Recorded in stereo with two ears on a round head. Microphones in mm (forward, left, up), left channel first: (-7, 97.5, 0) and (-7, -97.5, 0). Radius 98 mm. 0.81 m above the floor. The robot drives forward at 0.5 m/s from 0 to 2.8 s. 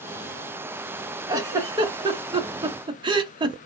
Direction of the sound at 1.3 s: 15° right (ahead or behind).